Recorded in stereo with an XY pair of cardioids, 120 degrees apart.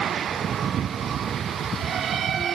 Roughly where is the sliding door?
I don't hear a sliding door.